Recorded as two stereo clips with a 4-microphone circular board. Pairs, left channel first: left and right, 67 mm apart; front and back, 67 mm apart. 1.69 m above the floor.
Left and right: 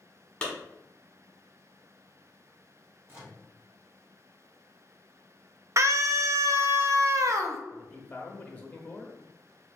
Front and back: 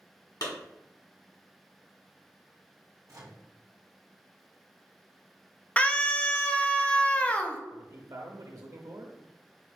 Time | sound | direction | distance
0.4 | a clap | 15° left | 1.5 m
3.1 | a microwave | 145° right | 1.0 m
5.8 | a scream | 65° right | 0.5 m
7.7 | a man speaking | 155° left | 0.9 m